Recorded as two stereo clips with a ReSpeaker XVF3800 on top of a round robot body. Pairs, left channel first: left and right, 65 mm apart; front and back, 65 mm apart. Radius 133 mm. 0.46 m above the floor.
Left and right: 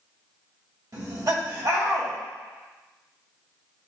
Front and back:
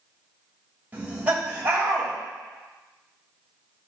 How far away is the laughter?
About 2.5 m.